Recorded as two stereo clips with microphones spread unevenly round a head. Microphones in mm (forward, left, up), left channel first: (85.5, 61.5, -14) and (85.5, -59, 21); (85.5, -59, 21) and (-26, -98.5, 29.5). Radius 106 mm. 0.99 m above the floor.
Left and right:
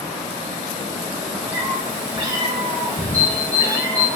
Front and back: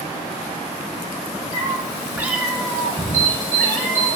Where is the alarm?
170° left, 3.5 m.